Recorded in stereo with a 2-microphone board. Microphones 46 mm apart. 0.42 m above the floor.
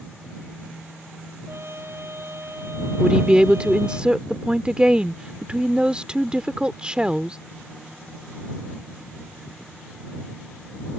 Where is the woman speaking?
20° right (ahead or behind).